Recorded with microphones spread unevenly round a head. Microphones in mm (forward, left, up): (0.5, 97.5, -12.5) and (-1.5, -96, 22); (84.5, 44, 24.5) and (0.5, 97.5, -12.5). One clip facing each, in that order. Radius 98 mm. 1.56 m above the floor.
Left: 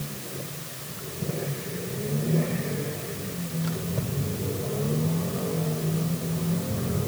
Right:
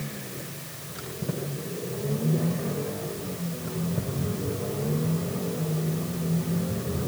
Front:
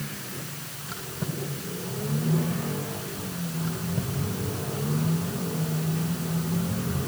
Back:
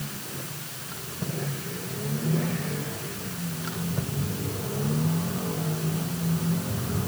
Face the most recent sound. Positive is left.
No sound to turn to.